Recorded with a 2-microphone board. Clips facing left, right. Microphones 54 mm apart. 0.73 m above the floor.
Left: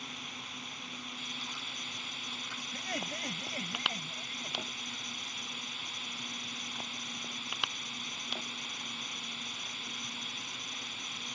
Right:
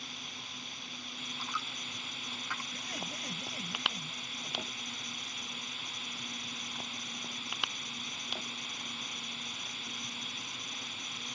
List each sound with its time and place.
0.0 s a drone: 15° left (ahead or behind)
1.4 s a dropped coin: 80° right
2.7 s laughter: 40° left (ahead or behind)